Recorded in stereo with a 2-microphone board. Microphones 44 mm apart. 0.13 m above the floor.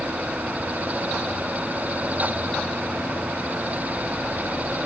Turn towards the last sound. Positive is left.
No sound to turn to.